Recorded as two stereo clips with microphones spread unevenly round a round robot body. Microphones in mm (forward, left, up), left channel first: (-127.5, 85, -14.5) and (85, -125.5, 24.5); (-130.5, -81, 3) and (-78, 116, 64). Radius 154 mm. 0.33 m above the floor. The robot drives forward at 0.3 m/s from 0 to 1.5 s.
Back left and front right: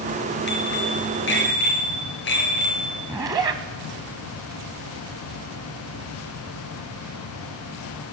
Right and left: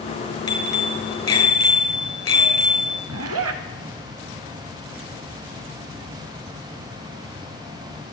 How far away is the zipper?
About 0.7 m.